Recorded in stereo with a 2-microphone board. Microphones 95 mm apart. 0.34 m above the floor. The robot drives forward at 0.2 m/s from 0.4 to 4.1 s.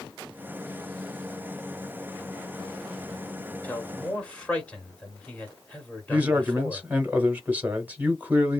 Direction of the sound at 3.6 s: 15° left (ahead or behind).